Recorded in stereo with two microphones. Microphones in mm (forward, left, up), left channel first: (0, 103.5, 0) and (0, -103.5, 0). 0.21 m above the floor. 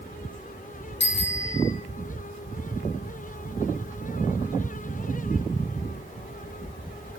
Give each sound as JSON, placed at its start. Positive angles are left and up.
{"t": 1.0, "sound": "a bicycle bell", "side_deg": 60, "distance_m": 2.5}